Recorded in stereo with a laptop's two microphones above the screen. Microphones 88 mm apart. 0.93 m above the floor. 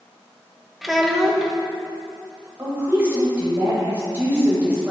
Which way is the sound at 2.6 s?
20° right (ahead or behind).